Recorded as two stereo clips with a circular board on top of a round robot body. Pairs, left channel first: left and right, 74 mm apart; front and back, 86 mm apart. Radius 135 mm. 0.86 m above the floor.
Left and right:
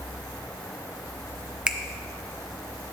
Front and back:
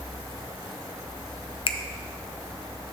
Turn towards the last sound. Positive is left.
turn(degrees=-15)